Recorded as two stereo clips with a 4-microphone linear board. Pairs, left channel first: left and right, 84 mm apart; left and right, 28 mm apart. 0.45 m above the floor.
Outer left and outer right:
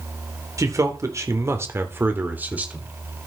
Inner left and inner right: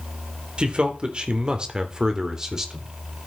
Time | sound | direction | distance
0.6 | a man speaking | 40° right (ahead or behind) | 1.6 m